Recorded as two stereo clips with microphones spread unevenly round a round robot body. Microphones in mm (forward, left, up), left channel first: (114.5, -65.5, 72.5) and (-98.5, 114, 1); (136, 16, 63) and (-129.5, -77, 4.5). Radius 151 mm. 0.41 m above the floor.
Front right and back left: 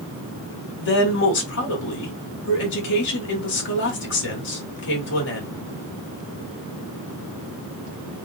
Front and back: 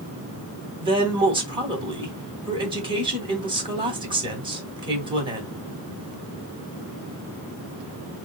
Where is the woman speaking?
95° right, 2.5 m.